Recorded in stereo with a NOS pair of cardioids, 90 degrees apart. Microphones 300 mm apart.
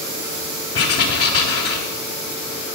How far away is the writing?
About 3.5 m.